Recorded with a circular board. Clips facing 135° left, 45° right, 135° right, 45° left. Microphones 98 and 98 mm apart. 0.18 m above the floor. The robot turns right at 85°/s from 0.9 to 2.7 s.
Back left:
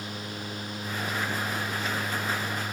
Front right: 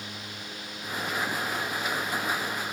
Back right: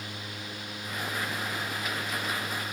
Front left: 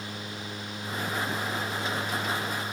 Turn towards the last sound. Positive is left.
No sound to turn to.